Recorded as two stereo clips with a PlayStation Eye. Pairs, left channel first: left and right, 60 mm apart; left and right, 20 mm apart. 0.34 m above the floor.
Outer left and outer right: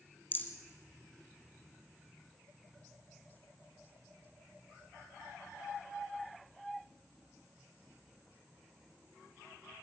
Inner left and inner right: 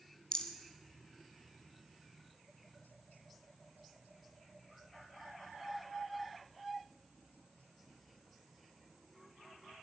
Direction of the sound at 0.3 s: 40° left (ahead or behind).